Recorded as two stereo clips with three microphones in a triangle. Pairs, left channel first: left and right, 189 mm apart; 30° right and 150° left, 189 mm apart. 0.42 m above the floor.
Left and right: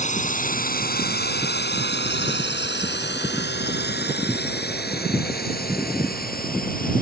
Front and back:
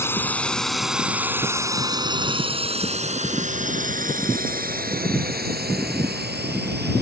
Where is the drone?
45° left; by 7.0 s 125° left.